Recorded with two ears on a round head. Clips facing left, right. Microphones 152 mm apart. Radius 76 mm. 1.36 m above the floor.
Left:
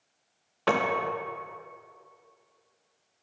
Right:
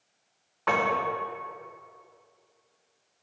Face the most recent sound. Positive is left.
turn(degrees=40)  # may be behind; listen again after turning